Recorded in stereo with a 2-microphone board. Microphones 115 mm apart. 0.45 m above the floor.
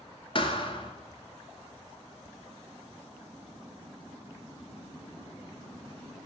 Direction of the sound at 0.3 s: 45° left (ahead or behind).